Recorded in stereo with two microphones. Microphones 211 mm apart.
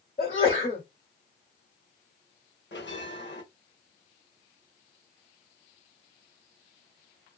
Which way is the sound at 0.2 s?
40° left (ahead or behind).